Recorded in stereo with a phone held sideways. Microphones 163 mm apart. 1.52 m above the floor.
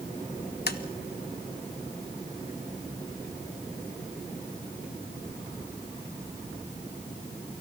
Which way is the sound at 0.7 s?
70° left (ahead or behind).